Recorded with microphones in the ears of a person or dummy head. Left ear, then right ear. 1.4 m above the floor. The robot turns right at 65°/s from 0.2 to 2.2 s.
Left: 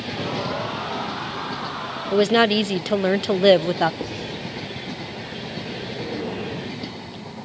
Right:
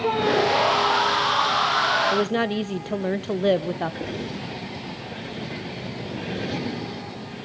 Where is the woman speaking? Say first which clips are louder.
Left 6 dB; 20° left (ahead or behind), 0.6 m; by 3.9 s 25° left (ahead or behind), 0.6 m.